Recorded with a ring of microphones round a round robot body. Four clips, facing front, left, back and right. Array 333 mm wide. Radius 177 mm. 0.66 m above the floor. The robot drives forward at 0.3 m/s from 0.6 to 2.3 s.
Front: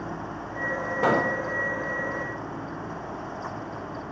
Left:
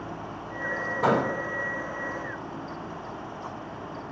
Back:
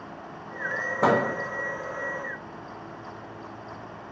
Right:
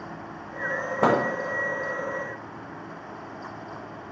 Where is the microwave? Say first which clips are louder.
Right 2 dB, back 1 dB; 105° right, 0.6 m; by 1.2 s 115° right, 0.6 m.